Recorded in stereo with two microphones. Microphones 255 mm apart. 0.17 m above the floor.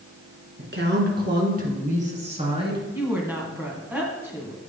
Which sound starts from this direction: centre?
A woman speaking, at 2.9 s.